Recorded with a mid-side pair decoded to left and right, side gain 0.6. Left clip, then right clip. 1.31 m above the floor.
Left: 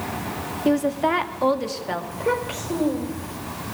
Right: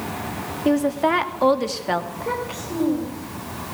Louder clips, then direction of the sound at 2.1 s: Left 3 dB; 30° left.